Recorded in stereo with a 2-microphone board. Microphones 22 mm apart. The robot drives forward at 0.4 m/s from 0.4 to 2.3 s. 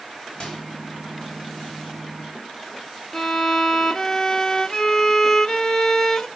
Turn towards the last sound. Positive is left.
turn(degrees=25)  # may be behind; listen again after turning